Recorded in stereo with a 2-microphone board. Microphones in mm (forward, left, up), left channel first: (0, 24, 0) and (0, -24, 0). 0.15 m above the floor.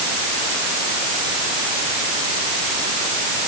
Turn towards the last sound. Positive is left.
No sound to turn to.